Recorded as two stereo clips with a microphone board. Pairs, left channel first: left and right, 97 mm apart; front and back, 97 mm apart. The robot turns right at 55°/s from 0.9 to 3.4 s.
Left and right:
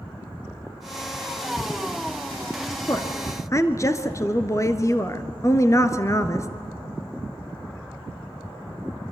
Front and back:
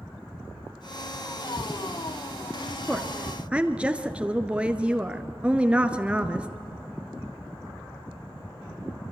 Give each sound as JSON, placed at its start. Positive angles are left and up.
{"t": 2.9, "sound": "a woman speaking", "azimuth_deg": 85, "distance_m": 1.2}